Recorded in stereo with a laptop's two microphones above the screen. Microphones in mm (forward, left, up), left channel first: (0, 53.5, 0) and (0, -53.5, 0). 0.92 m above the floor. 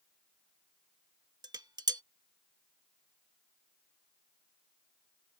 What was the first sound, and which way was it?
Dishes clattering, 40° right (ahead or behind).